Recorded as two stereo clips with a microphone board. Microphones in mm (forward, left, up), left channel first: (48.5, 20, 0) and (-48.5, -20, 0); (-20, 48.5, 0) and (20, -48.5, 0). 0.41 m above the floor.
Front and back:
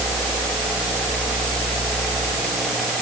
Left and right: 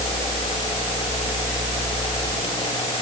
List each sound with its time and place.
Only background noise.